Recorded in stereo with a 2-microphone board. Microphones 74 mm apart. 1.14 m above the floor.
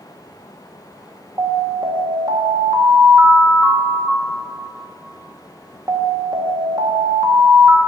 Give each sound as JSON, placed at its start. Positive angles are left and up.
{"t": 1.4, "sound": "an alarm", "side_deg": -65, "distance_m": 1.5}